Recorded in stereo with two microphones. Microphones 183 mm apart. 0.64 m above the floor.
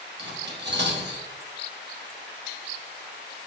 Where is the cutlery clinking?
65° right (ahead or behind), 1.0 m.